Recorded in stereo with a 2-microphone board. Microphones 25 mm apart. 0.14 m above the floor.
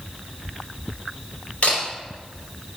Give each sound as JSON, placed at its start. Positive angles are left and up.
{"t": 1.6, "sound": "a camera shutter", "side_deg": 55, "distance_m": 3.5}